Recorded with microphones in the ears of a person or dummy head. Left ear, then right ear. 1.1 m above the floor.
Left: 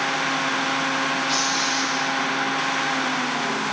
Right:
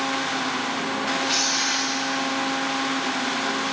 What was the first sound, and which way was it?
Tearing paper, centre (ahead or behind).